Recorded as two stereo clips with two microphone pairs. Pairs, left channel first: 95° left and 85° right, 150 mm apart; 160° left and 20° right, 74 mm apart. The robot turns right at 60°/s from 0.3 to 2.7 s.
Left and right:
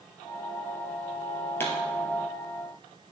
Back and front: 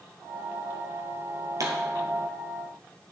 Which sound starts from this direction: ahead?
A pop, at 1.6 s.